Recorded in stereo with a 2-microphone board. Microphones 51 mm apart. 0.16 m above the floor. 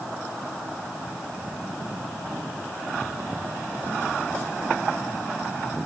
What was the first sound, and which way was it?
Only background noise.